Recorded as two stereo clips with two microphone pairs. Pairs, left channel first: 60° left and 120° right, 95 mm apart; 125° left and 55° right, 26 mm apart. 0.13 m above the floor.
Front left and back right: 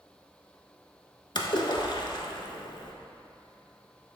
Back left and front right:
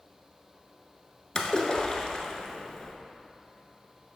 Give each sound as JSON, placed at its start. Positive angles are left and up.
{"t": 1.4, "sound": "a splash", "azimuth_deg": 75, "distance_m": 0.7}